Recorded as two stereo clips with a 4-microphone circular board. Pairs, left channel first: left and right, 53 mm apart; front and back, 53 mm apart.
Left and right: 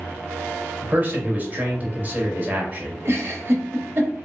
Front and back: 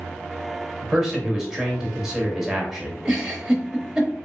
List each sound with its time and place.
0.8 s a man speaking: 105° right, 1.1 m
3.0 s a giggle: 105° right, 0.9 m